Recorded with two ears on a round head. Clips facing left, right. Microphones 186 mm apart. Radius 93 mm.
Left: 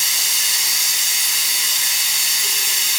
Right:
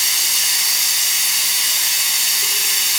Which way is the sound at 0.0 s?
65° right (ahead or behind).